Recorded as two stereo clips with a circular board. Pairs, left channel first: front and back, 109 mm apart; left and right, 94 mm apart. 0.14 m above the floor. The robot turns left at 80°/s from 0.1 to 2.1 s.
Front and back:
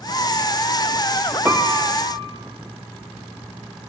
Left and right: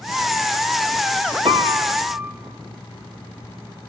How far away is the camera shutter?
I don't hear a camera shutter.